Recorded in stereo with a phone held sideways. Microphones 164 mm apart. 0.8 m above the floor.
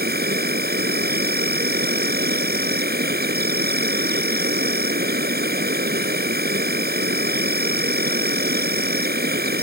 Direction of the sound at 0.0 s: 75° right (ahead or behind).